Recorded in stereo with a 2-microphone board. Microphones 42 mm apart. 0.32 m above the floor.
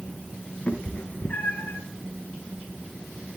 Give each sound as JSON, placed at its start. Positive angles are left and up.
{"t": 0.7, "sound": "a cat meowing", "side_deg": 35, "distance_m": 1.0}